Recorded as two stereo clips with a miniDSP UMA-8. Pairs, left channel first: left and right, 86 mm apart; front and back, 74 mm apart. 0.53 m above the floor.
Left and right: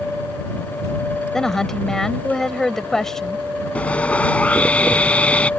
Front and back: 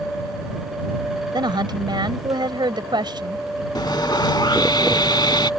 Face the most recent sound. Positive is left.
turn(degrees=15)